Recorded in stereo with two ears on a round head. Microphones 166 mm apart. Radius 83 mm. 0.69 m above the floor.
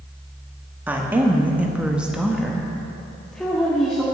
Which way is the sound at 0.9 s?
10° right (ahead or behind).